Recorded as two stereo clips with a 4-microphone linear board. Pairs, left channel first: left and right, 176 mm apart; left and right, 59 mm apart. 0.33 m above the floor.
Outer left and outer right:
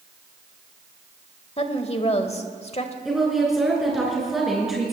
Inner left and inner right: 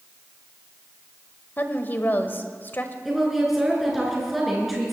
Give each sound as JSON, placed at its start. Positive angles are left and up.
{"t": 1.6, "sound": "a woman speaking", "side_deg": 35, "distance_m": 1.1}
{"t": 3.0, "sound": "a woman speaking", "side_deg": 0, "distance_m": 4.0}